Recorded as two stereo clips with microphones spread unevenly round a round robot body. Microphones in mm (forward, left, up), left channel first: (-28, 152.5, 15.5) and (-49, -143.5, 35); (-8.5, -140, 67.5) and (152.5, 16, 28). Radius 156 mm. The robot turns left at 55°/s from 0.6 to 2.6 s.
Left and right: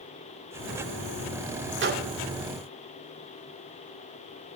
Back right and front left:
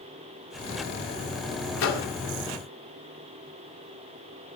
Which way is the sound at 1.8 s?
145° right.